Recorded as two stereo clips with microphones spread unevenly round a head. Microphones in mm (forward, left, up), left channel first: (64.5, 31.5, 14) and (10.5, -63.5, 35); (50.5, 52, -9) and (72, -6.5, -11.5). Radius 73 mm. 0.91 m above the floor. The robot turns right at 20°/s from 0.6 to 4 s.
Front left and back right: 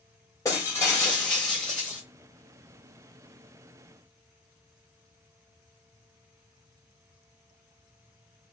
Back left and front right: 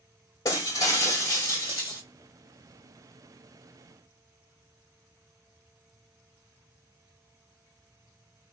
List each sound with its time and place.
0.5 s breaking glass: 135° left, 1.2 m; by 2.0 s 165° left, 1.2 m